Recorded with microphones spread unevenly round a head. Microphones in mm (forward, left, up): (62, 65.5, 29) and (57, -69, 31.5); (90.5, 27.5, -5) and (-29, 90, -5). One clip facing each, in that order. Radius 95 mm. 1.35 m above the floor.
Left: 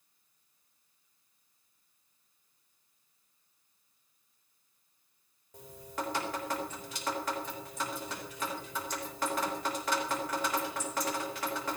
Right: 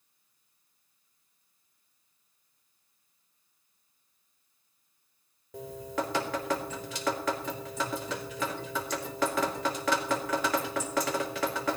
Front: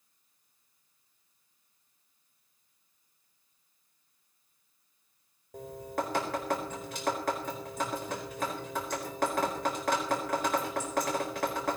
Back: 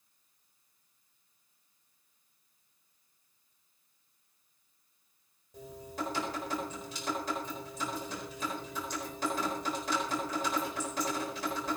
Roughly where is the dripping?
Right.